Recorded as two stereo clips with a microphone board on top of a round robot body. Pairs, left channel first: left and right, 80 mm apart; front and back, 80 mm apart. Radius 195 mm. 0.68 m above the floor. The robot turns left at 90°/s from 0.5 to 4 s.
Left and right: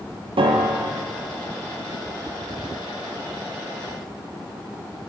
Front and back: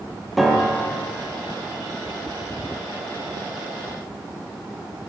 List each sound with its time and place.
0.4 s a piano: 90° right, 0.6 m; by 1.1 s 140° right, 0.6 m